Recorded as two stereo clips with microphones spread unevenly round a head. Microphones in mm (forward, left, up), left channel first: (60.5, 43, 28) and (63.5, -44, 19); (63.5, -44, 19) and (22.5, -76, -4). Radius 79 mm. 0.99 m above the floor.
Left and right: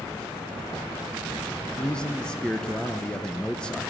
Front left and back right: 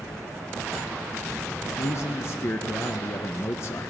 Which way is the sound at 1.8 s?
10° left.